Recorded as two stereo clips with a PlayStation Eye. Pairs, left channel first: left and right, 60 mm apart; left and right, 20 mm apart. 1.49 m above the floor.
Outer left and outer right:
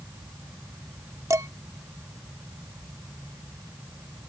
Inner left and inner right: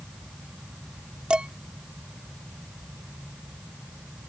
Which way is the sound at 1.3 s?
60° right (ahead or behind).